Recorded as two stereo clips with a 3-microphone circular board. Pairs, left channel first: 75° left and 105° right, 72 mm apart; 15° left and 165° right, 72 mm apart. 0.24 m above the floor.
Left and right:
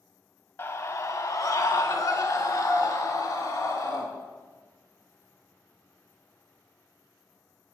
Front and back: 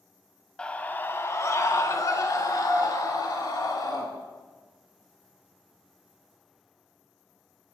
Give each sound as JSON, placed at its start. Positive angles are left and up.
{"t": 0.6, "sound": "a scream", "azimuth_deg": 80, "distance_m": 1.5}